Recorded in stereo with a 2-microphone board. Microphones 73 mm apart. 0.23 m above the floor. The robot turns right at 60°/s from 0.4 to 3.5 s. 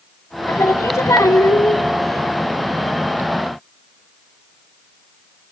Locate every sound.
0.5 s singing: 55° left, 0.8 m; by 1.8 s 135° left, 0.8 m